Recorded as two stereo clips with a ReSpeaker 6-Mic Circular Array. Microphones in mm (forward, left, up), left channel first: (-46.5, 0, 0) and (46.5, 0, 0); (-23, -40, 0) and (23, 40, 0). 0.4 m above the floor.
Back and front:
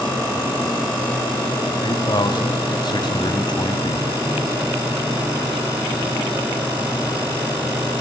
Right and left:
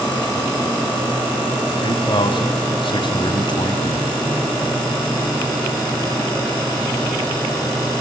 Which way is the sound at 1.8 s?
145° right.